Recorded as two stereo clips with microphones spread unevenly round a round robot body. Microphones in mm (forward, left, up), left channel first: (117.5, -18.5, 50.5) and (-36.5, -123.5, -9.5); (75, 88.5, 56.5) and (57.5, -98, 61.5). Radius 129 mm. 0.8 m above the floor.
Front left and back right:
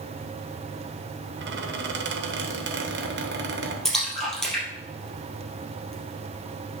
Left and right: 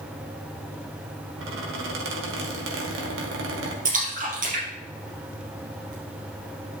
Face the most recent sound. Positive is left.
turn(degrees=-50)